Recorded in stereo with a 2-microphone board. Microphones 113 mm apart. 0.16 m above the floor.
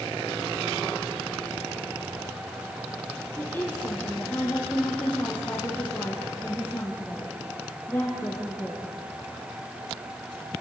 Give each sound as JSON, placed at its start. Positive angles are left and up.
{"t": 3.4, "sound": "a woman speaking", "side_deg": 20, "distance_m": 4.0}